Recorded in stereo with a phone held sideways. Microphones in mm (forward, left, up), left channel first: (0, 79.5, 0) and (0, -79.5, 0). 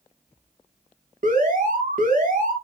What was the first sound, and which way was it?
An alarm, 55° right (ahead or behind).